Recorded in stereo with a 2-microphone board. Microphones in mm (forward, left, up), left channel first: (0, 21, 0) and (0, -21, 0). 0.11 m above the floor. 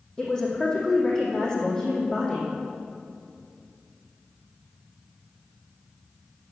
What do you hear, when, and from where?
0.2 s a woman speaking: 15° left (ahead or behind), 4 m